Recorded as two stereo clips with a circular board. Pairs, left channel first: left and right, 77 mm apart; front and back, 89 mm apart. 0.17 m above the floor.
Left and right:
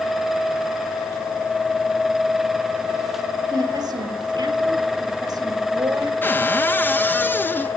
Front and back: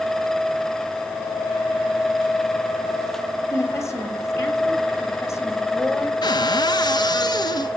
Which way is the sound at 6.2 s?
30° left.